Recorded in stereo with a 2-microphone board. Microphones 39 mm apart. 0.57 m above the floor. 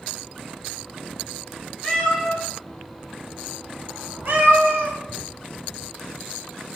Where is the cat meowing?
15° left (ahead or behind), 1.2 m; by 5.0 s 80° right, 1.1 m.